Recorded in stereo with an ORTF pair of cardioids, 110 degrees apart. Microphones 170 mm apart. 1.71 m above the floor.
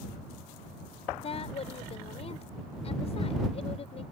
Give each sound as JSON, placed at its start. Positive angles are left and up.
{"t": 1.2, "sound": "a woman speaking", "azimuth_deg": 35}